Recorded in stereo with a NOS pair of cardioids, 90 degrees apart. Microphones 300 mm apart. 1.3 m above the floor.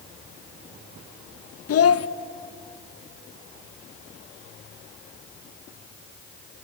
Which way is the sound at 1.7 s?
55° left.